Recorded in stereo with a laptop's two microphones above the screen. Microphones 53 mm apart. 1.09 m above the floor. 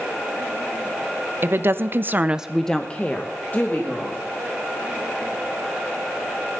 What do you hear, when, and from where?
1.4 s a woman speaking: 50° right (ahead or behind), 1.2 m; by 4.2 s 35° left (ahead or behind), 2.5 m